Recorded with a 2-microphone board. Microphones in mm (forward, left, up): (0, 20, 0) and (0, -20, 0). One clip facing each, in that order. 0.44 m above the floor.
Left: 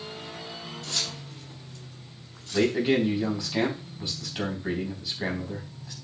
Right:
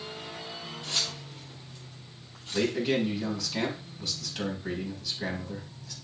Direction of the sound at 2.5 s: 25° left (ahead or behind).